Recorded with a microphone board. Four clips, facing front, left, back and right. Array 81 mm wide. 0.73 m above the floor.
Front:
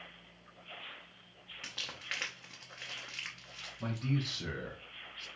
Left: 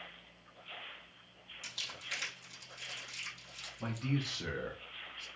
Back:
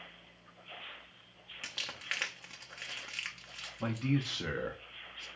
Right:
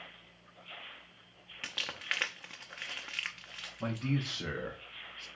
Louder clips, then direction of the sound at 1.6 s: Right 8 dB, back 2 dB; 100° right.